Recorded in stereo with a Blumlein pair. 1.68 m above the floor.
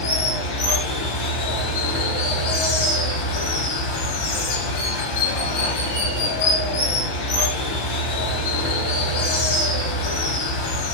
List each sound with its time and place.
0.0 s running water: 45° left, 1.0 m